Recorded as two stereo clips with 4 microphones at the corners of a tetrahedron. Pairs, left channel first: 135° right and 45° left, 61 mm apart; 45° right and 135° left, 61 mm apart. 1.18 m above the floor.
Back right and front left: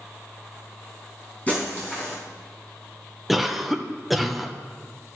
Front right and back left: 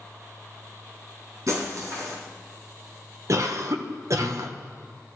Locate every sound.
1.5 s breaking glass: 160° left, 4.5 m
3.3 s a cough: 135° left, 1.0 m